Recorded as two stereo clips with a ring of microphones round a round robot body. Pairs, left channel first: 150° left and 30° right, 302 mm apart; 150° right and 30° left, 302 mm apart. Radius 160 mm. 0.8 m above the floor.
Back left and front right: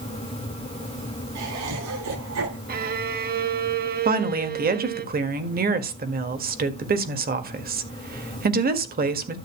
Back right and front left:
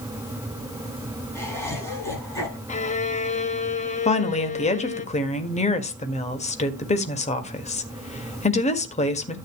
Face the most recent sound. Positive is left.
turn(degrees=-85)